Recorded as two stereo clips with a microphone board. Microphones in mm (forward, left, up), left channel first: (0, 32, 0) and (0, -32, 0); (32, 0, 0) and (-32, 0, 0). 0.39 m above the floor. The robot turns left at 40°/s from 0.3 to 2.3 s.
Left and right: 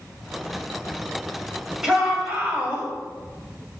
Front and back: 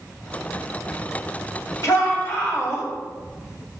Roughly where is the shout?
Ahead.